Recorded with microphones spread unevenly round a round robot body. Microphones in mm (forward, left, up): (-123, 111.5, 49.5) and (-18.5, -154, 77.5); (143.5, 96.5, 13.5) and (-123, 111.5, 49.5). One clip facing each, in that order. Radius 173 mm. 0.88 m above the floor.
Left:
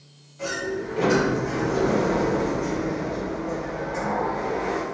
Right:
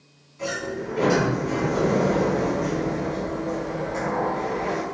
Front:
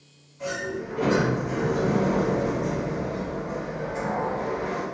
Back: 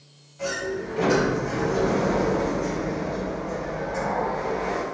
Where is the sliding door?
170° right, 1.8 m.